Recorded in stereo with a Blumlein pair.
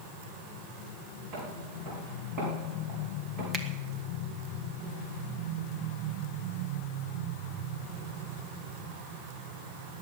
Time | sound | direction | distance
1.3 | footsteps | 40° right | 5.5 m
3.5 | a finger snap | 20° right | 1.5 m